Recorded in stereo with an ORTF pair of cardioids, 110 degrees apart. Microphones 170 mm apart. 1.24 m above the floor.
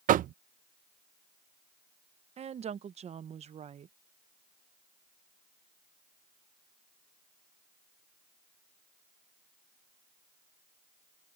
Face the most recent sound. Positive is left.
turn(degrees=-40)